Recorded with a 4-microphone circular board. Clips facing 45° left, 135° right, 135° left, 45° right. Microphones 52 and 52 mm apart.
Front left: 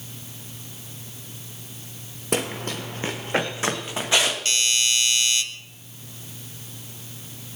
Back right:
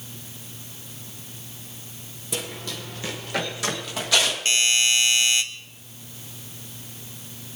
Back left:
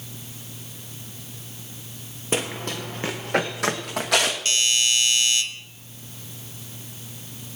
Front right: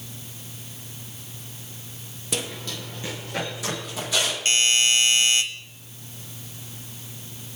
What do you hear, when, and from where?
2.3 s running footsteps: 80° left, 1.3 m; by 4.3 s 110° left, 3.5 m
4.5 s a doorbell: 85° right, 1.7 m